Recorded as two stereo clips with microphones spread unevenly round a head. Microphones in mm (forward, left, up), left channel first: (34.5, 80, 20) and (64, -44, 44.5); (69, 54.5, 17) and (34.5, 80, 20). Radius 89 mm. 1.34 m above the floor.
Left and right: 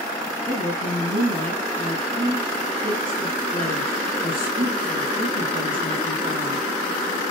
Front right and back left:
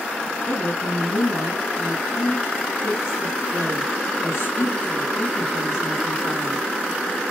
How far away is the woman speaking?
About 9 m.